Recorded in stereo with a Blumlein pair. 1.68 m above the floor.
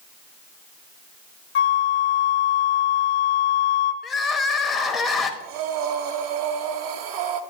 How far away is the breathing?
About 0.7 m.